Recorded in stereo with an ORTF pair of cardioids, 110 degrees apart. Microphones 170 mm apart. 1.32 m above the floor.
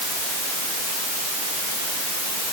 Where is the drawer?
I don't hear a drawer.